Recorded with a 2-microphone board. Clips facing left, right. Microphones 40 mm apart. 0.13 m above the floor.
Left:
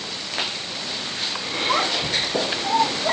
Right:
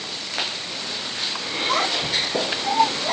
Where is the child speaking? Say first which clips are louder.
Even; 10° left (ahead or behind), 4 m; by 3.1 s 30° left (ahead or behind), 3.5 m.